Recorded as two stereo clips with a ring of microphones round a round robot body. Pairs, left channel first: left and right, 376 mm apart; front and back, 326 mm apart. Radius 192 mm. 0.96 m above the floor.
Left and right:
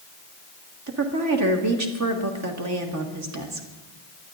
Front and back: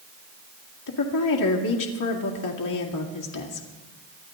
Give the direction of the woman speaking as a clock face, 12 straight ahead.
1 o'clock.